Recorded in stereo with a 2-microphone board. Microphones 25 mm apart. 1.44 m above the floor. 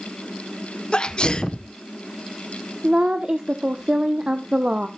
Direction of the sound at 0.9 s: 40° left (ahead or behind).